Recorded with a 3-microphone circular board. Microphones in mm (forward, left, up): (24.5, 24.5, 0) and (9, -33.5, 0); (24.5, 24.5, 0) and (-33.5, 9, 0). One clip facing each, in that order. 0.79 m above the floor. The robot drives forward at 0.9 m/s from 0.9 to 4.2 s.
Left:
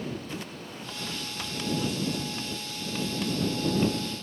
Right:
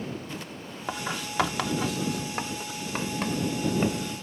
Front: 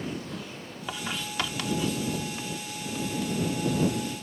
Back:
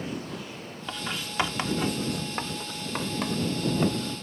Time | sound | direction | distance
0.9 | writing | 70° right | ?